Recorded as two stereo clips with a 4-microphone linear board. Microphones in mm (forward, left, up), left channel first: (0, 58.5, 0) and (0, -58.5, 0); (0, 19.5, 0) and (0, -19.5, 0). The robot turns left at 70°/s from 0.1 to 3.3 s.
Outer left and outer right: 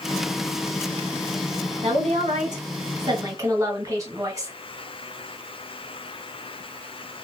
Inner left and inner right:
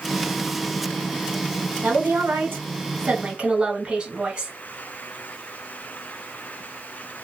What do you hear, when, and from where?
1.8 s a woman speaking: 50° right, 1.6 m; by 4.5 s 150° right, 1.6 m